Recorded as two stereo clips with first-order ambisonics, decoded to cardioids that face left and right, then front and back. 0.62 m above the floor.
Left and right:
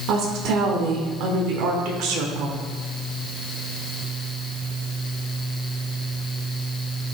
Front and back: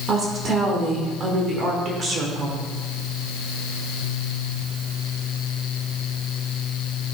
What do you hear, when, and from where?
0.1 s a woman speaking: 115° right, 1.6 m